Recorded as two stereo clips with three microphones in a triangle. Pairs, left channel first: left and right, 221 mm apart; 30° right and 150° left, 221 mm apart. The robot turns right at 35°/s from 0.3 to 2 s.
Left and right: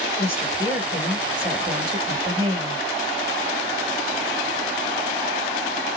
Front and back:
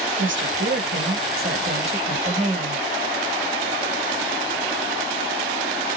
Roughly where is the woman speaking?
Behind left.